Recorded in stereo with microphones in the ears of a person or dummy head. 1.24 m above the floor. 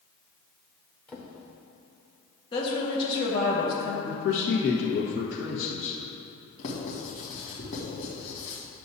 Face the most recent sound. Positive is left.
turn(degrees=50)  # may be behind; listen again after turning